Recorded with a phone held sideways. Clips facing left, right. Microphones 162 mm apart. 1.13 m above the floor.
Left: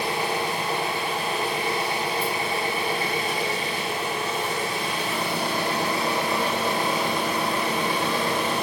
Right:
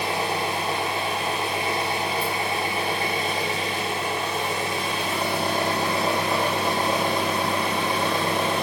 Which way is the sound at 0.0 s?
25° right (ahead or behind).